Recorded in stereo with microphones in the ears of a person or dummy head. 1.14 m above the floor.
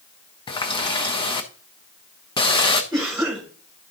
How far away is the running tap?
About 0.8 m.